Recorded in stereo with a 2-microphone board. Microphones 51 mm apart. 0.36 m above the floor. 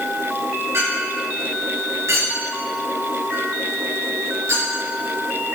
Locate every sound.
0.7 s a clink: 80° right, 4.5 m